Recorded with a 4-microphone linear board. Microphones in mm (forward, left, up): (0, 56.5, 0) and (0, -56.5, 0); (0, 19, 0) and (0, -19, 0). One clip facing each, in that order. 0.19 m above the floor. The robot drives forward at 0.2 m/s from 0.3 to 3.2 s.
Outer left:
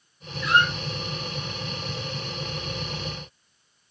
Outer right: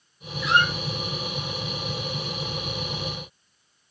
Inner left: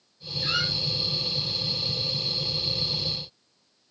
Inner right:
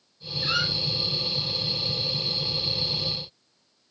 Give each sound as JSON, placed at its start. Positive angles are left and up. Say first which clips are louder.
{"t": 0.4, "sound": "a squeak", "louder": "even, inner right 1 dB", "side_deg": 0, "distance_m": 1.2}